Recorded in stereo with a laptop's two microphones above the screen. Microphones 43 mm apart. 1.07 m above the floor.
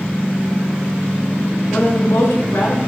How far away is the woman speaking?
About 0.6 m.